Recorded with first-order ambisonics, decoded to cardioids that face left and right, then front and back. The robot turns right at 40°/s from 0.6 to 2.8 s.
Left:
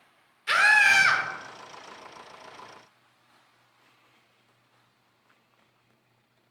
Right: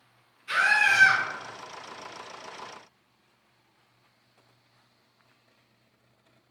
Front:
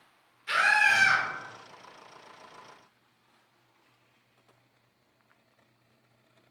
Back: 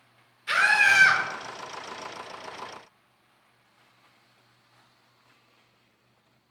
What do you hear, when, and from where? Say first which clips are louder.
0.5 s a scream: left 3 dB, back 3 dB; 105° left, 1.0 m; by 1.2 s 130° left, 1.0 m